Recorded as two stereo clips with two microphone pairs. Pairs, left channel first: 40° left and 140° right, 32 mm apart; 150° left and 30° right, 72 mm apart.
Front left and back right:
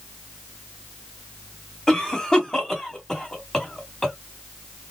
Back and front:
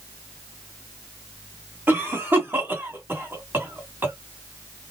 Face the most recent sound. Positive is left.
turn(degrees=-15)